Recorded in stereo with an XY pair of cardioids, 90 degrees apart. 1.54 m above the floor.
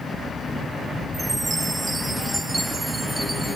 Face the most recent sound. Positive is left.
turn(degrees=-15)